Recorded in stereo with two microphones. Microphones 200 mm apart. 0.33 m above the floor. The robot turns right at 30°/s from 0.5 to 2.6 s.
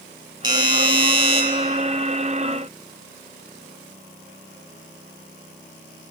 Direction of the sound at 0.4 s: 20° right (ahead or behind).